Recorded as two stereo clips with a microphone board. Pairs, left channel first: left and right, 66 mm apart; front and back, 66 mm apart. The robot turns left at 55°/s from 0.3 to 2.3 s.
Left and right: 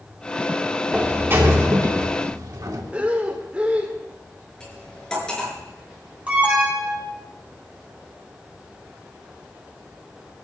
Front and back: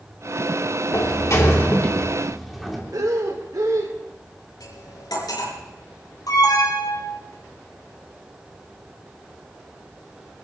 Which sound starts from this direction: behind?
Breathing, at 2.9 s.